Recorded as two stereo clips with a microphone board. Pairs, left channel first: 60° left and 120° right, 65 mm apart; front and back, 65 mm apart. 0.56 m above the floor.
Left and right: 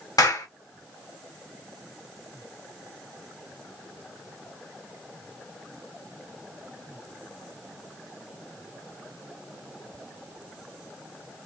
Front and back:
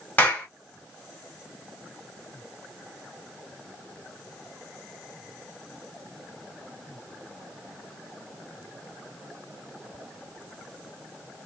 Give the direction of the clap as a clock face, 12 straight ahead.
10 o'clock.